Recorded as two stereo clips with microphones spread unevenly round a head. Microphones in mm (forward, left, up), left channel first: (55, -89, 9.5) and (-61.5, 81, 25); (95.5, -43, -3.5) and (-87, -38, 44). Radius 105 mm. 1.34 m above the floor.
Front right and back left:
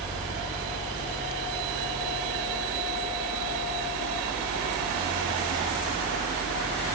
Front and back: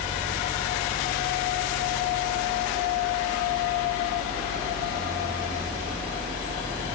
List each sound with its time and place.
0.0 s a fan: 50° left, 5.5 m